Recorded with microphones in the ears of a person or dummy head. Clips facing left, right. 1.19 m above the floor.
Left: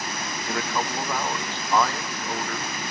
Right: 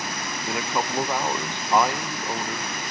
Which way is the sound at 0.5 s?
15° right (ahead or behind).